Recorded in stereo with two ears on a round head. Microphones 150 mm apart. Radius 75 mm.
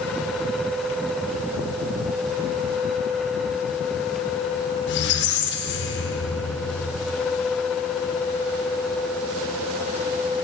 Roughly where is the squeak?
Left.